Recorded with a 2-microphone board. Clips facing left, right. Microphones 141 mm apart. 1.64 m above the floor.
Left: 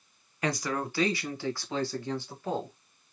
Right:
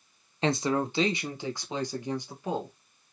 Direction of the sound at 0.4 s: 25° right (ahead or behind).